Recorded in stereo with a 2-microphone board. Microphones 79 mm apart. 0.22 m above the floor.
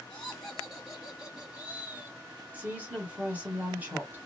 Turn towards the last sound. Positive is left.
turn(degrees=-20)  # may be behind; listen again after turning